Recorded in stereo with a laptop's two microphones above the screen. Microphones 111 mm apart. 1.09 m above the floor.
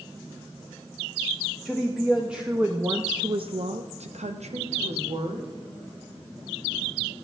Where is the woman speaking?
Centre (ahead or behind), 1.3 m; by 5.5 s 60° right (ahead or behind), 1.4 m.